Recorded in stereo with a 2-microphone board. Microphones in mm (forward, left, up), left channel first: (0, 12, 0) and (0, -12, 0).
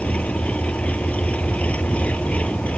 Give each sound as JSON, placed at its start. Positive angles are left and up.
{"t": 0.0, "sound": "an engine running", "side_deg": 70}